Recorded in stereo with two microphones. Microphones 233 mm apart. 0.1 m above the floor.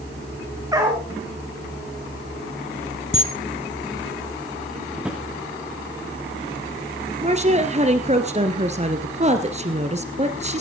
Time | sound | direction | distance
0.7 | a dog barking | 15° right (ahead or behind) | 4.5 m
3.1 | a camera shutter | 65° left (ahead or behind) | 1.6 m
5.0 | a drawer | 5° right (ahead or behind) | 4 m
7.2 | a woman speaking | 30° right (ahead or behind) | 1.6 m